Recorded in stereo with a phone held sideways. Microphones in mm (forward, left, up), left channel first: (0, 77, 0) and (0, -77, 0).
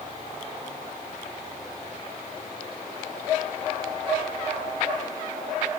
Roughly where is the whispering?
No whispering in this recording.